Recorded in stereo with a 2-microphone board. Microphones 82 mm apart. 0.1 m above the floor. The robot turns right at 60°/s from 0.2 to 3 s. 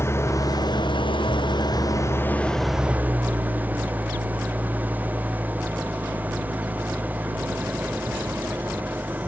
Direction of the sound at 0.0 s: 35° left.